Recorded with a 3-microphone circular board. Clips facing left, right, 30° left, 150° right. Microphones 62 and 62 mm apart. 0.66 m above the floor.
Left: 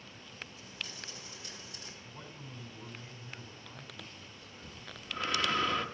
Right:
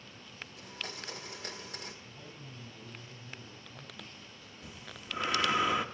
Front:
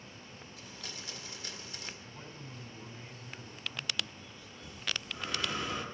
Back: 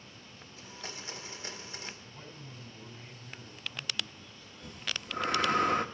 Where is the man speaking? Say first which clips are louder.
Left 1 dB, front 1 dB; 100° left, 4.5 m.